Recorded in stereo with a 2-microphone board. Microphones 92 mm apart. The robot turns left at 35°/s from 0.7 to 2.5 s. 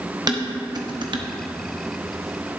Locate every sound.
0.3 s dishes clattering: 45° right (ahead or behind), 0.7 m; by 1.2 s 55° right (ahead or behind), 0.7 m